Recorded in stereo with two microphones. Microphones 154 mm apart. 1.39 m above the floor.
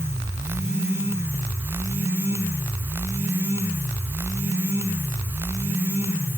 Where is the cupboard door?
I don't hear a cupboard door.